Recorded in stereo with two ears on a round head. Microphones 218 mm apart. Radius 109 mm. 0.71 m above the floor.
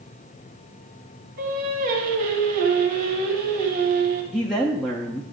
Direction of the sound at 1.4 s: 40° right (ahead or behind).